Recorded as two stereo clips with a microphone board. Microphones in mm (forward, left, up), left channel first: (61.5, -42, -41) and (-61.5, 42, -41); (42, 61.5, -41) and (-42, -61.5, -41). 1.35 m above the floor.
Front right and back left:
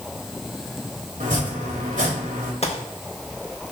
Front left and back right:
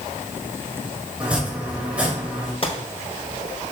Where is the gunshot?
5° left, 1.2 m.